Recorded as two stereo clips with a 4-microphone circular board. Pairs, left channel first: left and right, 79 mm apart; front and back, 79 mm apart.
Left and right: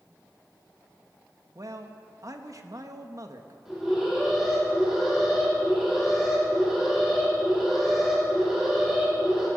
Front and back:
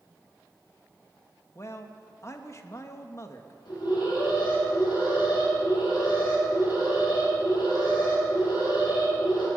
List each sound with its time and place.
1.6 s a man speaking: 50° right, 1.2 m
3.6 s an alarm: 10° right, 6 m